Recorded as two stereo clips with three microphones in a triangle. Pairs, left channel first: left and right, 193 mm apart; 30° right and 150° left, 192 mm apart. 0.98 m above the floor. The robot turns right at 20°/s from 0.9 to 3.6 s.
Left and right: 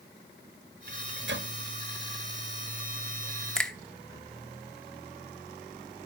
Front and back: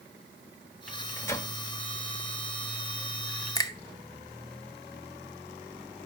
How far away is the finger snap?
About 0.6 m.